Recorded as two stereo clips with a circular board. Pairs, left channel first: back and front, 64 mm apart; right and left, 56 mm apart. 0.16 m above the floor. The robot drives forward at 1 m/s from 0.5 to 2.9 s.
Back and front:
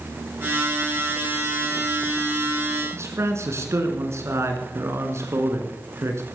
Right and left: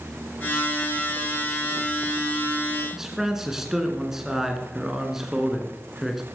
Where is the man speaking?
10° left, 2 m.